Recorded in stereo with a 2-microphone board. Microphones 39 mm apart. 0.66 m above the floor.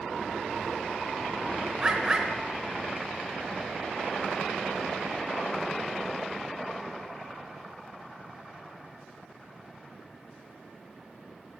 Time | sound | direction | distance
1.8 | a bird | 20° right (ahead or behind) | 1.0 m